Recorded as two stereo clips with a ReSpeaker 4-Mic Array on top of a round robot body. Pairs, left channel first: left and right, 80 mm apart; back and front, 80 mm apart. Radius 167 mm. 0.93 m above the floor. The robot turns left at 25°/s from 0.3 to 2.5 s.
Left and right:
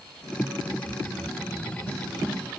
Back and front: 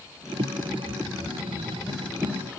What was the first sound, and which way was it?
Only background noise.